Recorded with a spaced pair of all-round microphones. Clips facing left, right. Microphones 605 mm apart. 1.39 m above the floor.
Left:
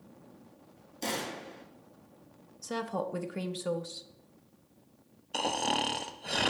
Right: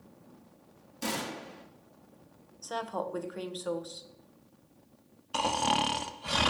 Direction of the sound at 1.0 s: 35° right (ahead or behind).